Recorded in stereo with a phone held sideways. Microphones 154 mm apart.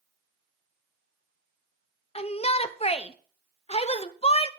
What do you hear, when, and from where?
2.1 s a shout: 40° left (ahead or behind), 0.9 m